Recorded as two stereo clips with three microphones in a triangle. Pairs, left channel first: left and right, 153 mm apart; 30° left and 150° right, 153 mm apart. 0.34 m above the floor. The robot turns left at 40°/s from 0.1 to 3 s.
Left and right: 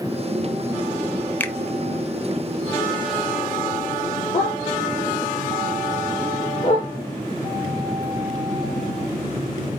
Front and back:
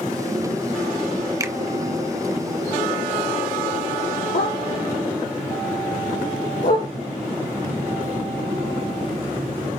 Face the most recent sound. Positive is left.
turn(degrees=45)